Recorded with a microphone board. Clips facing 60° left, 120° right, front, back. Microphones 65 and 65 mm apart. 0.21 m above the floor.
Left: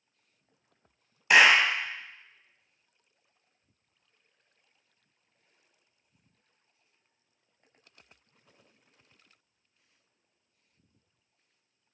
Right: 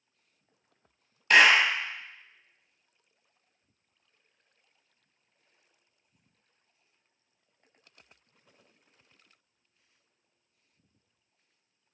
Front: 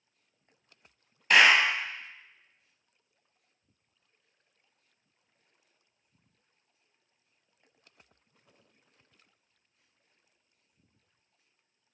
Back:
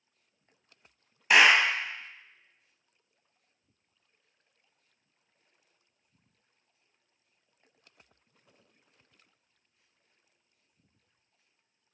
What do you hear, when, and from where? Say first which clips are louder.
1.3 s a clap: even, even; 115° left, 0.8 m